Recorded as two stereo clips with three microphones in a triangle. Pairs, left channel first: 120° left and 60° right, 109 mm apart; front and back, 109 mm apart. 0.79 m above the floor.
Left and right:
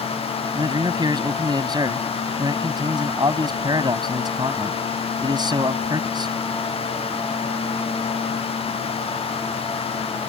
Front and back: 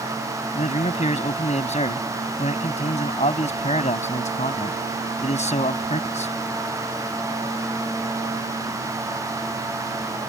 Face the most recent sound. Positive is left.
turn(degrees=-10)